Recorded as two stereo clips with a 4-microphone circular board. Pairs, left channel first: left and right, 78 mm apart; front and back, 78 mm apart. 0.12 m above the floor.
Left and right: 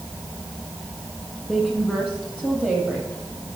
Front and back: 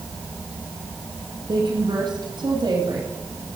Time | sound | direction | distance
1.5 | a woman speaking | 170° right | 4 m